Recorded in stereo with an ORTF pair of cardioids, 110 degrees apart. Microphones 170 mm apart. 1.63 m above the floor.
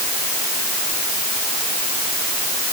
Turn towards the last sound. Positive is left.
No sound to turn to.